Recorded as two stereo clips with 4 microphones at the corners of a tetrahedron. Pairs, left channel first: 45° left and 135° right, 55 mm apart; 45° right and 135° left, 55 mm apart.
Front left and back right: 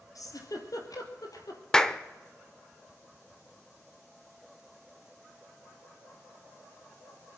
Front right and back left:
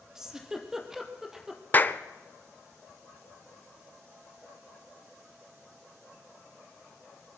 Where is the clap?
25° right, 0.7 m.